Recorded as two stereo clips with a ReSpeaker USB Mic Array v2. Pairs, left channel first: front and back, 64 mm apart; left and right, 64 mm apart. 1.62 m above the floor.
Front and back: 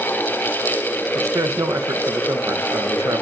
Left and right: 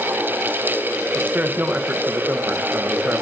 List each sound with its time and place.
1.1 s a man speaking: 150° right, 2 m